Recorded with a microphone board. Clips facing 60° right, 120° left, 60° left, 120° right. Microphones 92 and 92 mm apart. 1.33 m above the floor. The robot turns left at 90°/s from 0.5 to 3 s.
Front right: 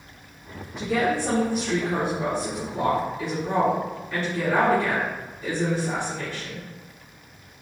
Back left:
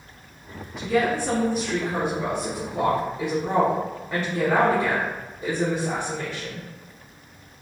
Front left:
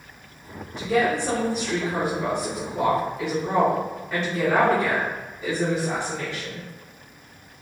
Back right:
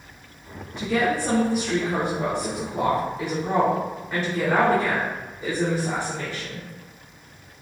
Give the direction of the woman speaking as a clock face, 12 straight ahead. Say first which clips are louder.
Back left 1 dB, front left 1 dB; 12 o'clock.